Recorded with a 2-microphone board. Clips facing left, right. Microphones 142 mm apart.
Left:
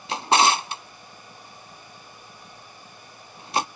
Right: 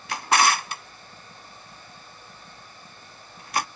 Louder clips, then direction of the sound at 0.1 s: Left 2 dB; 25° left (ahead or behind).